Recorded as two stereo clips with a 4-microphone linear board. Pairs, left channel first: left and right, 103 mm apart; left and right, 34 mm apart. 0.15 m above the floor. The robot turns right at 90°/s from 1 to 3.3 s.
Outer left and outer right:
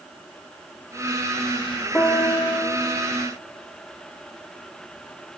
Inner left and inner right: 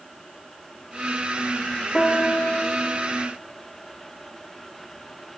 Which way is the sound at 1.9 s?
15° left.